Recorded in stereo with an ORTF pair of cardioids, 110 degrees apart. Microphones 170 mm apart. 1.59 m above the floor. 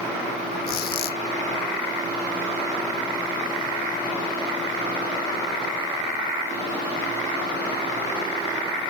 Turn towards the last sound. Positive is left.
turn(degrees=65)